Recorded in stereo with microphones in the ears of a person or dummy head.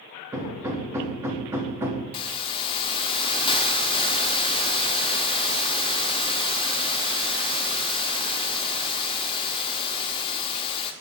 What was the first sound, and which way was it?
Hammering, 5° right (ahead or behind).